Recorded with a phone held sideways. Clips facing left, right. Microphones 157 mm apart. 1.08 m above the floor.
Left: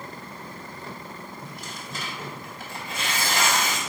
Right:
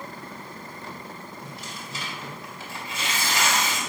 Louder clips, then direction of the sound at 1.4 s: Even; 45° left (ahead or behind).